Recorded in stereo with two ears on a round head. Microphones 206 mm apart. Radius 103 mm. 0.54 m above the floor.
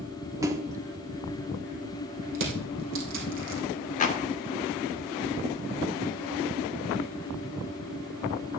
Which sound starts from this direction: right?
Crushing, at 2.4 s.